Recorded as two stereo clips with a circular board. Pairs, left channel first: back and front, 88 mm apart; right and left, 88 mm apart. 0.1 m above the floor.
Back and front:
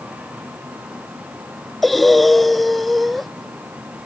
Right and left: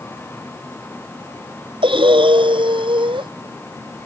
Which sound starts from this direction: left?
Breathing, at 1.8 s.